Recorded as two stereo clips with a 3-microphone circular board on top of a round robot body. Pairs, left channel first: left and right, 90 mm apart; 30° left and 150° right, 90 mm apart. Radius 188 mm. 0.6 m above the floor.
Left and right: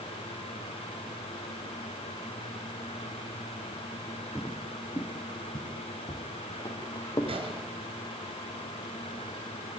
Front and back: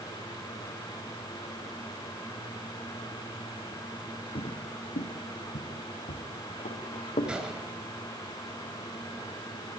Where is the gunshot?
70° right, 4 m.